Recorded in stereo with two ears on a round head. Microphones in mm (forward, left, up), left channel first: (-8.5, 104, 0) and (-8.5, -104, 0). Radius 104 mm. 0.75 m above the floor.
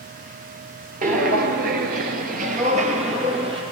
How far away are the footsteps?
About 1.0 m.